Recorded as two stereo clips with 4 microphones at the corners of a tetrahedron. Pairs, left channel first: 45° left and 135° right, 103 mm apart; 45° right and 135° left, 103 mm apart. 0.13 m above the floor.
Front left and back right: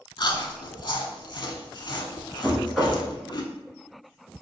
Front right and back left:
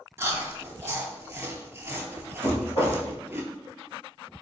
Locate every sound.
0.2 s chewing: 75° left, 0.5 m
2.4 s knocking: 45° right, 1.7 m